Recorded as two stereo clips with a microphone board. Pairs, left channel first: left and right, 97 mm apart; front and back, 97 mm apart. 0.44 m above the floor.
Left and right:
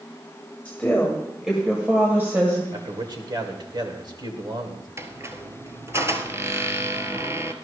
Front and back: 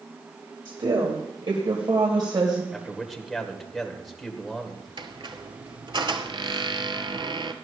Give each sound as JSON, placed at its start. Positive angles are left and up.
{"t": 0.7, "sound": "a woman speaking", "azimuth_deg": 160, "distance_m": 2.5}
{"t": 2.7, "sound": "a man speaking", "azimuth_deg": -90, "distance_m": 1.9}
{"t": 5.0, "sound": "a squeak", "azimuth_deg": -150, "distance_m": 1.0}